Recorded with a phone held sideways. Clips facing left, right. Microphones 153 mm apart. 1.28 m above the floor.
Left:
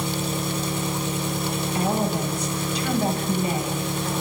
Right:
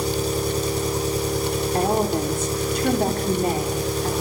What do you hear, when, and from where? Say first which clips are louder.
0.0 s an engine running: right 4 dB; 40° right (ahead or behind), 3.5 m
1.7 s a woman speaking: right 3 dB; 50° right (ahead or behind), 4 m